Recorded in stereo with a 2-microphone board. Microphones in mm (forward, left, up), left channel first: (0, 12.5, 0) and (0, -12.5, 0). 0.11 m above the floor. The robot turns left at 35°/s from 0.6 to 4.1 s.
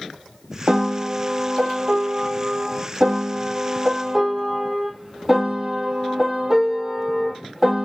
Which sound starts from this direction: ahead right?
A piano, at 0.7 s.